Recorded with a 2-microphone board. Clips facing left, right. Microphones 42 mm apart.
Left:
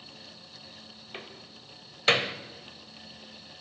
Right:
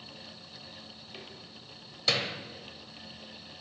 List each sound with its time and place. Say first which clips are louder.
1.1 s a door slam: left 5 dB; 45° left (ahead or behind), 1.0 m